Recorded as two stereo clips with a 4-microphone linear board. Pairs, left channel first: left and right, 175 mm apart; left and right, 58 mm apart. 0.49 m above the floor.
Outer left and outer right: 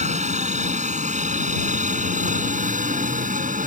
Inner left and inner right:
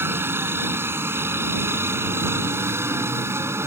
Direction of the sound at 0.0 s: 40° right (ahead or behind).